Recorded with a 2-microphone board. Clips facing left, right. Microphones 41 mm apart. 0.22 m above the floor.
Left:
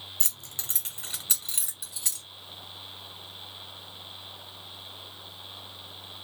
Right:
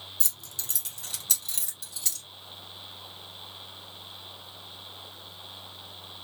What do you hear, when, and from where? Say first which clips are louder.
0.2 s keys jangling: left 1 dB; 40° left (ahead or behind), 1.0 m; by 2.2 s 15° left (ahead or behind), 2.0 m